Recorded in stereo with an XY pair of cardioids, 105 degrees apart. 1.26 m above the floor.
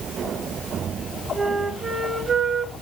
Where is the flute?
30° right, 1.0 m.